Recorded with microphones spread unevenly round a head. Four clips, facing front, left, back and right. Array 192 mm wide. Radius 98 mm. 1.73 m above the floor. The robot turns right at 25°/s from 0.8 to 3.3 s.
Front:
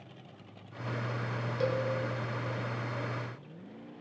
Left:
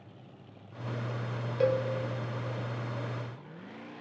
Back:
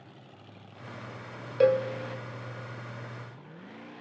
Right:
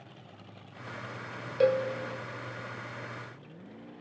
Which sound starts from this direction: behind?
A cowbell, at 1.6 s.